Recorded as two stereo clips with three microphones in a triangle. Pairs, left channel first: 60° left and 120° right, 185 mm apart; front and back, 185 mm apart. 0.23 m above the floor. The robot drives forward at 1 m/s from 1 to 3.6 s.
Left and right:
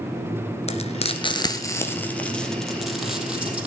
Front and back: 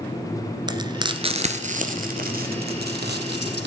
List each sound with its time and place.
0.7 s frying: 115° left, 1.6 m; by 3.7 s 155° left, 3.5 m